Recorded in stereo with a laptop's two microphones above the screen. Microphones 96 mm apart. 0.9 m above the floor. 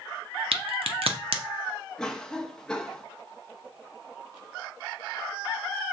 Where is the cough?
5° left (ahead or behind), 0.8 m.